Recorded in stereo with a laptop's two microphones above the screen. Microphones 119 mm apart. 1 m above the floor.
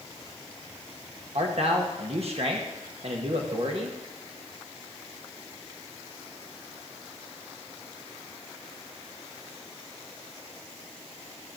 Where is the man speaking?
55° right (ahead or behind), 1.3 m.